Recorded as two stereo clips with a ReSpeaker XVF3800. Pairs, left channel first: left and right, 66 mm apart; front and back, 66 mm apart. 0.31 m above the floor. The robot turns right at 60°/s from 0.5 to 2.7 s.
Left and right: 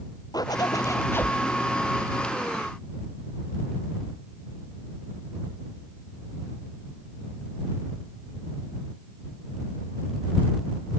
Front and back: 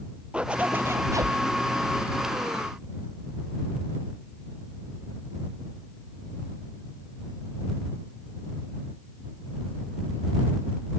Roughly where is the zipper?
Left.